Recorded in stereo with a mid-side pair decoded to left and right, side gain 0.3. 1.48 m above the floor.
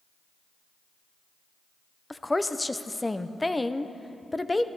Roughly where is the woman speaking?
Ahead.